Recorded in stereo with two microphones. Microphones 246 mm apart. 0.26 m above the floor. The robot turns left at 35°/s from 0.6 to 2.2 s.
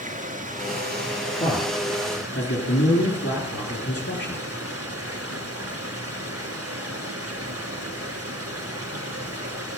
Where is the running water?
35° right, 2 m; by 9.8 s 90° right, 2 m.